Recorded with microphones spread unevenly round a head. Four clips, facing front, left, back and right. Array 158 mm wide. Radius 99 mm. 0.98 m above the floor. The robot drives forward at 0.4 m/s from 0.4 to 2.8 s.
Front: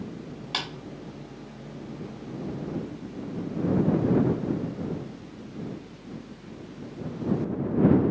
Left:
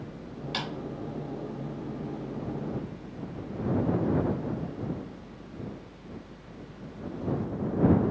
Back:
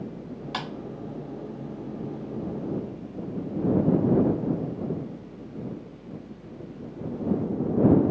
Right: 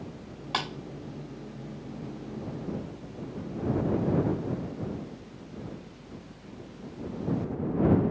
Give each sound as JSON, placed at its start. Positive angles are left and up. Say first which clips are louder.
{"t": 0.5, "sound": "a clap", "louder": "right 4 dB, back 1 dB", "azimuth_deg": -115, "distance_m": 1.4}